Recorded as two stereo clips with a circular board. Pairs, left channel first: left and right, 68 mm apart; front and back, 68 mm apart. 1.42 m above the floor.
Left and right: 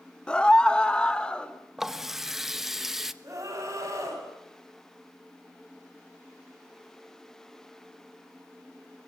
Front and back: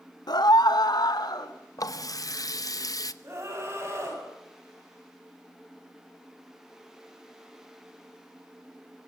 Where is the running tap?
5° right, 1.0 m.